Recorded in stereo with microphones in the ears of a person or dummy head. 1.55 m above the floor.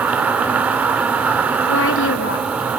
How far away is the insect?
About 2.5 m.